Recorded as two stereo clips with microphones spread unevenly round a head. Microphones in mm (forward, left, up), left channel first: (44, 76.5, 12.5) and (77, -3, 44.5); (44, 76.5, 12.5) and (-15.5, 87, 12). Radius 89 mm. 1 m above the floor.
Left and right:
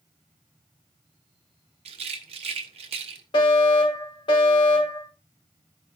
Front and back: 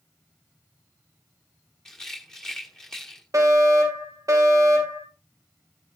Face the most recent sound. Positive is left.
turn(degrees=145)